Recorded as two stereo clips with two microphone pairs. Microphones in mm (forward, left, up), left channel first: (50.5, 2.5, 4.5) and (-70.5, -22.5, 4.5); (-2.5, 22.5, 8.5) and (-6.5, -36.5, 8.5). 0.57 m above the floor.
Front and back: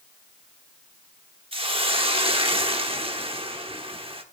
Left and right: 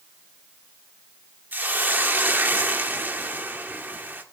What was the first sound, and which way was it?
A hiss, 140° right.